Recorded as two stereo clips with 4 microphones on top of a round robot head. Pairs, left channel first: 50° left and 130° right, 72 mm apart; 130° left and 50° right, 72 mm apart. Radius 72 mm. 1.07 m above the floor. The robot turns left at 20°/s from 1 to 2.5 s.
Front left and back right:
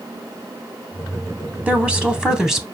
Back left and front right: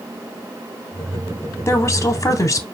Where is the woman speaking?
160° left, 0.9 m; by 2.6 s 140° left, 0.9 m.